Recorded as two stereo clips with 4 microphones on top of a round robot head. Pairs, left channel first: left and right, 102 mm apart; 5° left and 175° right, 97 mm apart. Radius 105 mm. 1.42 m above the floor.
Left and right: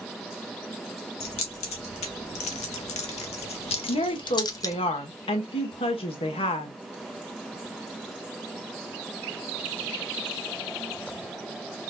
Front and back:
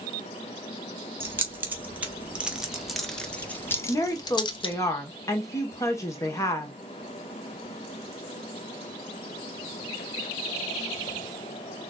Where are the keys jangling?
120° left, 2 m; by 4.8 s 30° left, 1.1 m.